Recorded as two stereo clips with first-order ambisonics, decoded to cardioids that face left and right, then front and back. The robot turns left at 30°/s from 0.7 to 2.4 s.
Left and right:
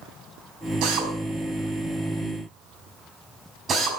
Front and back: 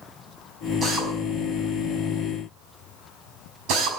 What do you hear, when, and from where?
0.8 s a drill: 110° right, 5.5 m; by 3.9 s 155° right, 5.5 m